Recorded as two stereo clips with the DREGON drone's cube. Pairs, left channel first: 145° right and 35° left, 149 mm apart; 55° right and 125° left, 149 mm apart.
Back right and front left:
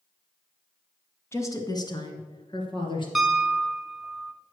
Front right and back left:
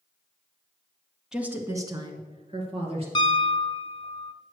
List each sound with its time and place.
1.3 s a woman speaking: 160° right, 1.2 m; by 3.0 s 165° left, 2.5 m
3.1 s a piano: 55° right, 0.9 m